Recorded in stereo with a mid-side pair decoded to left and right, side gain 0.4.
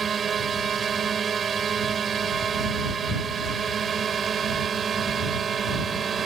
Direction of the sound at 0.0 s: 45° right.